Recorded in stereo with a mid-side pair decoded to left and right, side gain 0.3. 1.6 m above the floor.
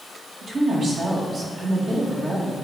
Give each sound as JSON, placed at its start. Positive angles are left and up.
{"t": 0.4, "sound": "a woman speaking", "azimuth_deg": -60, "distance_m": 2.0}